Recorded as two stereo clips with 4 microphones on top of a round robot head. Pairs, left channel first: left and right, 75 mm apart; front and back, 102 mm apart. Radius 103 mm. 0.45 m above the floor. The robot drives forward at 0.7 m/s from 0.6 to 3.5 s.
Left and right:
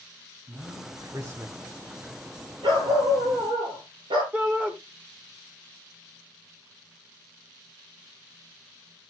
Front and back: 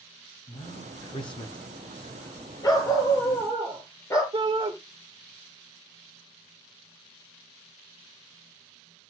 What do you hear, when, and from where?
0.5 s a man speaking: 30° right, 2.5 m; by 1.6 s 40° right, 2 m
2.6 s a dog barking: 60° right, 4.5 m; by 4.2 s 70° right, 4 m
4.3 s a shout: 160° right, 2 m